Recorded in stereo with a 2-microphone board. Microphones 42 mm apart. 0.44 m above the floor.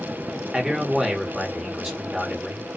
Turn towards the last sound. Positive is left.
turn(degrees=-5)  # may be behind; listen again after turning